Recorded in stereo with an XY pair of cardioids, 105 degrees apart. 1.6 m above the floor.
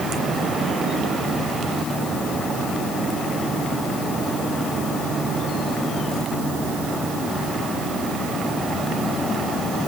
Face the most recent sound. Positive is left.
No sound to turn to.